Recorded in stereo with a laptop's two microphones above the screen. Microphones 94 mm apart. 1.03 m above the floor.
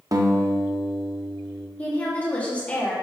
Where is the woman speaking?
15° left (ahead or behind), 1.6 m.